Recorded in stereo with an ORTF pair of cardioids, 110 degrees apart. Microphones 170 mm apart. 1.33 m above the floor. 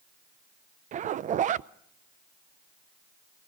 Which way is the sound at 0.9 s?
45° right.